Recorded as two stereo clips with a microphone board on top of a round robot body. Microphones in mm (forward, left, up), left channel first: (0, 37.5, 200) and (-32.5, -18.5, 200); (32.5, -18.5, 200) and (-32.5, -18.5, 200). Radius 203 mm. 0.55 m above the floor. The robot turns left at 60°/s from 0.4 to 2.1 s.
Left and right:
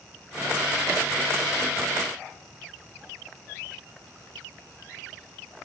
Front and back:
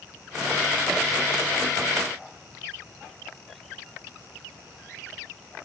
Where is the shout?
No shout in this recording.